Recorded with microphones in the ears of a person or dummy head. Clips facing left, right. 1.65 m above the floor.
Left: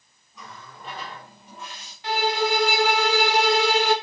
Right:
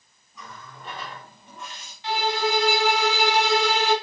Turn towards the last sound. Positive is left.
turn(degrees=45)  # may be behind; listen again after turning